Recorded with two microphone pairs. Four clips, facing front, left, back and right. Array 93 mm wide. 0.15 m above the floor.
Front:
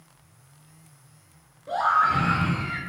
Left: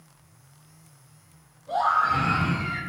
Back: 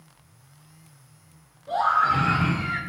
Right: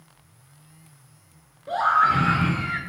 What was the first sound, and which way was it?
A scream, 75° right.